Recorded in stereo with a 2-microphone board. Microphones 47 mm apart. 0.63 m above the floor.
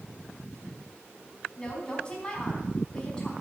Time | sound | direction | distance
1.6 | a woman speaking | 20° left (ahead or behind) | 4 m